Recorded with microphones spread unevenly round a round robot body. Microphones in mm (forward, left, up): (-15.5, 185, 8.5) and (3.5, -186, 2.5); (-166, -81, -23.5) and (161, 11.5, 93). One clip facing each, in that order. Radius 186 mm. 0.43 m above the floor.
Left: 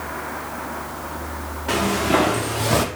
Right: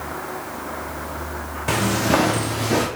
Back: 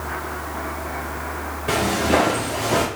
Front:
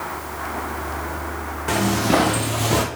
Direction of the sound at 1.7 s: 50° right.